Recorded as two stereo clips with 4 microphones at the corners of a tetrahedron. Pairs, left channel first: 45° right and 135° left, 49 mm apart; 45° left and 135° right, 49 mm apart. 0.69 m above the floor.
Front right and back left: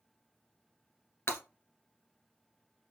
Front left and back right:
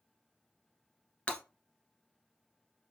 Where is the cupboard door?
I don't hear a cupboard door.